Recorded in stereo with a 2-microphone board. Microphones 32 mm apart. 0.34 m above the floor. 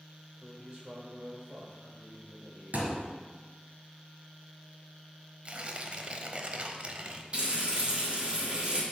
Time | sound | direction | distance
0.4 | a man speaking | 25° right (ahead or behind) | 1.2 m
2.7 | a thud | 60° right (ahead or behind) | 2 m
5.5 | tearing paper | 40° right (ahead or behind) | 0.6 m
7.3 | frying | 35° right (ahead or behind) | 2 m